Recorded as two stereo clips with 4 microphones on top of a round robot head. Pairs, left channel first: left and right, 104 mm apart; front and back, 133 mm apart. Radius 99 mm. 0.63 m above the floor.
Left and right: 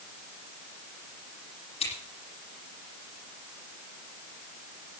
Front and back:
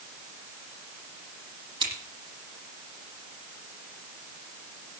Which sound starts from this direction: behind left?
Scissors, at 1.8 s.